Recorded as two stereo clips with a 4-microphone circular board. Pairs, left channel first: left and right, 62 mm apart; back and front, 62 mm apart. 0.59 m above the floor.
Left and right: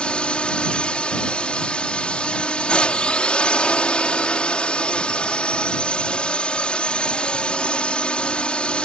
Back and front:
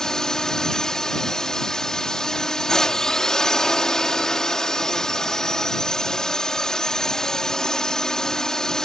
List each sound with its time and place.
0.0 s a drone: 120° left